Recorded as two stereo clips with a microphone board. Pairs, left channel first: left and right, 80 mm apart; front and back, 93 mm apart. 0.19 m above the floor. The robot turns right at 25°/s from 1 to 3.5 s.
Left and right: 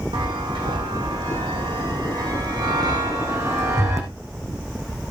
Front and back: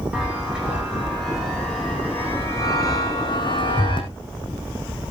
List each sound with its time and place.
0.1 s a chime: 100° right, 5.5 m; by 4.1 s 35° right, 5.5 m